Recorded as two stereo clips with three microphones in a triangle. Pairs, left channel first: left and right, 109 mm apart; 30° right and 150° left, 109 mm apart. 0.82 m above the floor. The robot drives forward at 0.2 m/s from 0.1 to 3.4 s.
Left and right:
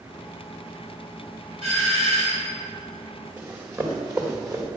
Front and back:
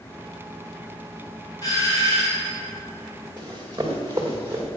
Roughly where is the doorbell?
Right.